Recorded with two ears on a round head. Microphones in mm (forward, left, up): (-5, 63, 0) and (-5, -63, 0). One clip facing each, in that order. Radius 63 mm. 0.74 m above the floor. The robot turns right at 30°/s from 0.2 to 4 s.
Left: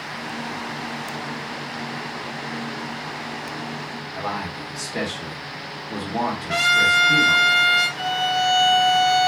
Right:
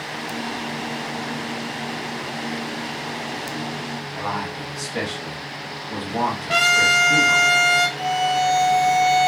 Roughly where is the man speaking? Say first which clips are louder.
Even; centre.